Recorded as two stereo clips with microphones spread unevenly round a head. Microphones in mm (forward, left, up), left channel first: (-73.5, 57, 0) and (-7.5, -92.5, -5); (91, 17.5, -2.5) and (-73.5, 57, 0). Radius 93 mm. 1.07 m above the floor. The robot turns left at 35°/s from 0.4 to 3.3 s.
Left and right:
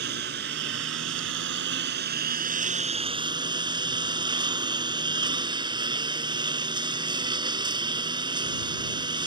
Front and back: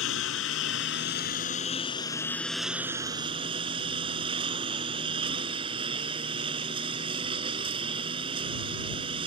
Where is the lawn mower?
30° right; by 9.3 s 130° right.